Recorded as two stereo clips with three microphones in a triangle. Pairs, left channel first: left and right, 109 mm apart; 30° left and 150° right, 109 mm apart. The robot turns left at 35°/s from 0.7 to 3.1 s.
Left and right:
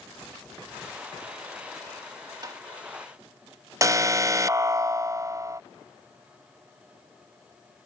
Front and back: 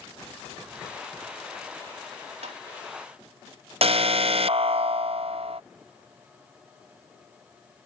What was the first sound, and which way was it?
Tapping, 140° right.